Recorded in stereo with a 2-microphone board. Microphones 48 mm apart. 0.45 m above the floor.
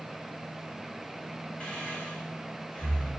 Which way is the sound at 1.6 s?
25° left (ahead or behind).